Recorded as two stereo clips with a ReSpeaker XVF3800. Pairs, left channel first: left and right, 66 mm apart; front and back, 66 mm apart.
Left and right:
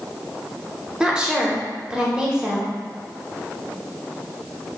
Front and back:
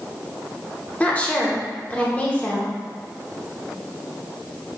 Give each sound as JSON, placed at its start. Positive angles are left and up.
{"t": 1.0, "sound": "a woman speaking", "azimuth_deg": -30, "distance_m": 0.7}